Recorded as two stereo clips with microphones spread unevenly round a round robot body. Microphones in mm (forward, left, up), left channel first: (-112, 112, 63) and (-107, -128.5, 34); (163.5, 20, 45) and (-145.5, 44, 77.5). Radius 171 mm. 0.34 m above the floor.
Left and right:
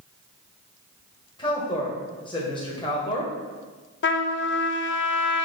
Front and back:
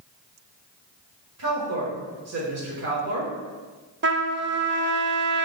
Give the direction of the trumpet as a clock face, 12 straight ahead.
8 o'clock.